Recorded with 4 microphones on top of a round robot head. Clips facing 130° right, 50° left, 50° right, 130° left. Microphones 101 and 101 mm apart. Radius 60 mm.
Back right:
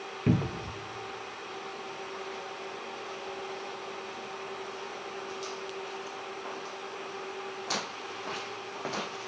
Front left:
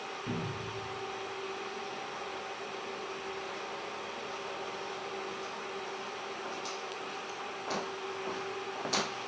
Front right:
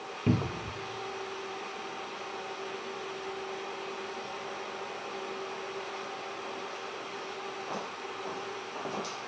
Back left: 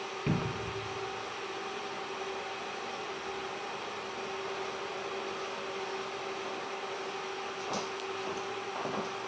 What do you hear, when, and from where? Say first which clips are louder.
0.3 s a cupboard door: back right 10 dB, front right 4 dB; 110° right, 0.8 m